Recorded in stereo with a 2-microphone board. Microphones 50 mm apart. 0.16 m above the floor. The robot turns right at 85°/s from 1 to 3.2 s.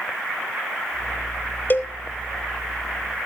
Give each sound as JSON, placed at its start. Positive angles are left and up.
{"t": 1.7, "sound": "a cowbell", "side_deg": 40, "distance_m": 0.9}